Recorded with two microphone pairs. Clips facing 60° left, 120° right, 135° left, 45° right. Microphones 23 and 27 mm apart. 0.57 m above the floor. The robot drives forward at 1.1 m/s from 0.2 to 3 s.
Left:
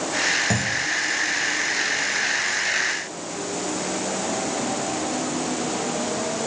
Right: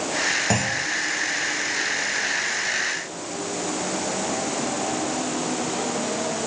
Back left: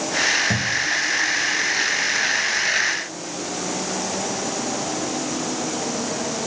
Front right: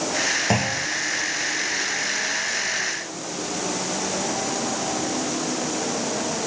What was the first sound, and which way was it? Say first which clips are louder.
A clunk: even, back left 1 dB; 60° right.